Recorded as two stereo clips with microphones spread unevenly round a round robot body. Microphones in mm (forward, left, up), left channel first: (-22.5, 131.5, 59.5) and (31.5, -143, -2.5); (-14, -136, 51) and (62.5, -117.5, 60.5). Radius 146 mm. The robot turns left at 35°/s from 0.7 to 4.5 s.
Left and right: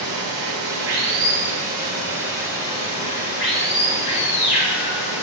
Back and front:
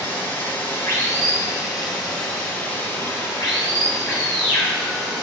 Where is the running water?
110° right, 4.5 m; by 5.2 s 115° left, 4.5 m.